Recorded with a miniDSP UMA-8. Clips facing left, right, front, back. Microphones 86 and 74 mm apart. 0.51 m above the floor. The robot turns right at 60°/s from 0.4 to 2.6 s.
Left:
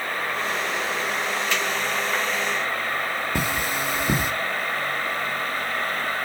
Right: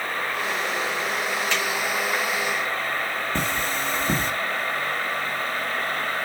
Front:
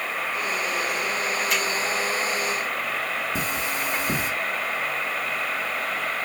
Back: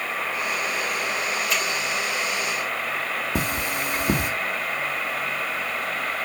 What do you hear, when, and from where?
1.5 s a finger snap: 5° left, 3.5 m; by 1.6 s 15° left, 3.5 m
3.4 s cutlery clinking: 165° left, 0.8 m